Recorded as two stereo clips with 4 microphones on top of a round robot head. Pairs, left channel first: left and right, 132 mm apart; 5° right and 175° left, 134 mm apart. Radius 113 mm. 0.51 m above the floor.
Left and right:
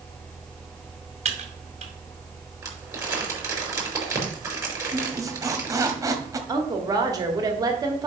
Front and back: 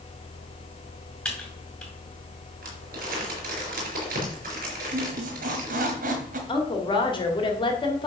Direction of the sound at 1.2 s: 85° right.